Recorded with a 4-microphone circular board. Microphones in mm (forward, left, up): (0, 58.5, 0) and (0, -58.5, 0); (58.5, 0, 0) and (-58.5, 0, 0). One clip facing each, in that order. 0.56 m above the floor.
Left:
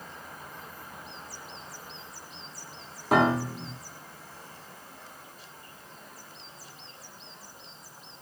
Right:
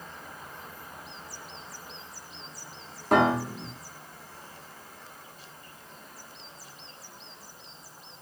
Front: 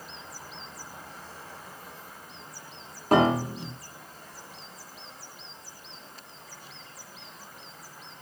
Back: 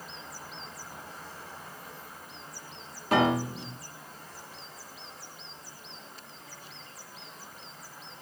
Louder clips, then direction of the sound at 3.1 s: Right 1 dB, front 3 dB; 5° left.